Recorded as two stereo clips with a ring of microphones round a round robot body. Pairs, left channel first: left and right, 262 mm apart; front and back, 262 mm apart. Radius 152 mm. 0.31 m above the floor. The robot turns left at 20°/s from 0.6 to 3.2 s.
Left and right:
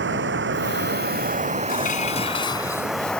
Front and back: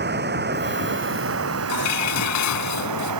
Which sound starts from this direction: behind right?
Running water, at 0.0 s.